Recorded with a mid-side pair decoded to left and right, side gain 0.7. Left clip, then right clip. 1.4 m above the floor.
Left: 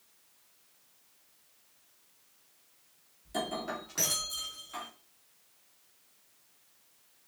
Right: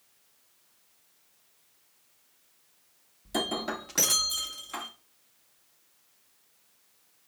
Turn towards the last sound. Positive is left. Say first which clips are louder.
# right 4 dB
turn(degrees=-35)